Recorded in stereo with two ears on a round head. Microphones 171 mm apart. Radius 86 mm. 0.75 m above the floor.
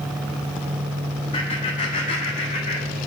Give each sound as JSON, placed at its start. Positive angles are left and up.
{"t": 1.3, "sound": "laughter", "side_deg": 35, "distance_m": 1.8}